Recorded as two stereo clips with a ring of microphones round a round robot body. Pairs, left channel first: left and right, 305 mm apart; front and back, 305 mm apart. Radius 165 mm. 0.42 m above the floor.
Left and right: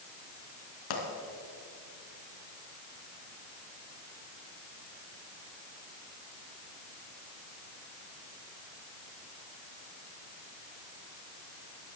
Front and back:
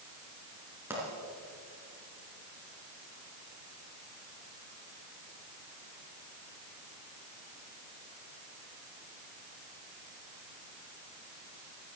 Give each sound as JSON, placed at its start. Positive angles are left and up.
{"t": 0.9, "sound": "a pop", "azimuth_deg": 95, "distance_m": 3.0}